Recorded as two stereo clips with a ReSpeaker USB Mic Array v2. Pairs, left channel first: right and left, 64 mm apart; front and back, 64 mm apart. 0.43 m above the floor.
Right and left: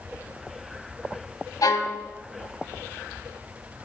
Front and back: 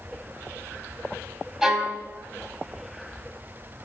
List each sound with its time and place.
1.6 s a violin: 95° right, 1.2 m